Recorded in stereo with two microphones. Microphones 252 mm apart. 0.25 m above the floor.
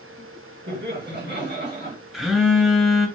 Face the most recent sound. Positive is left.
turn(degrees=0)  # may be behind; listen again after turning